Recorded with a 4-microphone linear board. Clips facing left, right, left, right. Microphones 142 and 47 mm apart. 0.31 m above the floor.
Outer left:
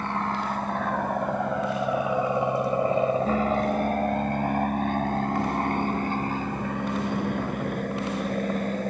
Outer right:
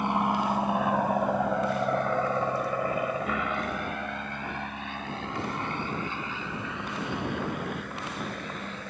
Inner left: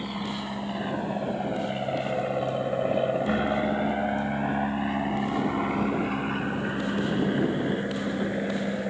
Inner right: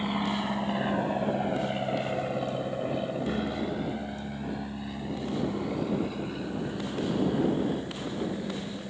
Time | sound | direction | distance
0.0 | an aircraft | 15° right (ahead or behind) | ?